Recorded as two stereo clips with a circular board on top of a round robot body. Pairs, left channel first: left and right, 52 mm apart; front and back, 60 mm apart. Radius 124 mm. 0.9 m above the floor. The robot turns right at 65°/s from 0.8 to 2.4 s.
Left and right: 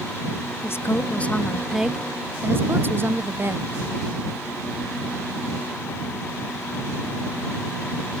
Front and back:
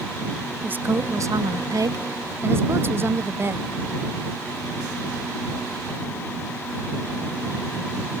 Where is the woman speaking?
125° left; by 3.7 s 135° right.